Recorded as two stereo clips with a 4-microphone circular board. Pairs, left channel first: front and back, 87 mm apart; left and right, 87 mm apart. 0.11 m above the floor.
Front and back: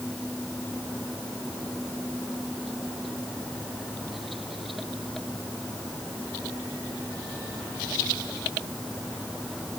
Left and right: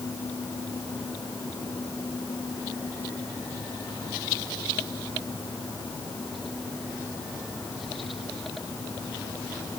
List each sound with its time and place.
Only background noise.